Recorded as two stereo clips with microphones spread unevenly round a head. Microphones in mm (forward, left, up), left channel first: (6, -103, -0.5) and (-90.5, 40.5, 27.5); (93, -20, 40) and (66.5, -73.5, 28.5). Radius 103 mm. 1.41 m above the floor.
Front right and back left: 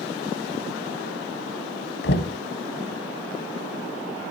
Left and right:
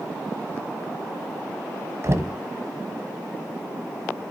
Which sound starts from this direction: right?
Knocking, at 2.0 s.